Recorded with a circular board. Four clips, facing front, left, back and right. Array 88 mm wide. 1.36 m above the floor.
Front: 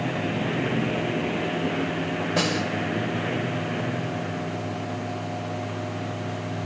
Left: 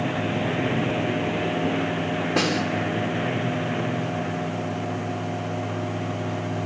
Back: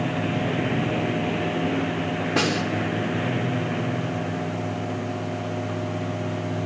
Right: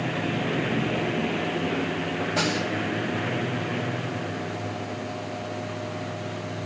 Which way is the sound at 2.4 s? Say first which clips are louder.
Left 3 dB, back 2 dB; 140° left.